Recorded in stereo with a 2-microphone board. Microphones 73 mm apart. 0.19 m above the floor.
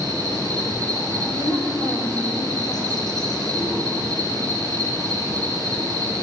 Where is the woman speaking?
65° left (ahead or behind), 7 m.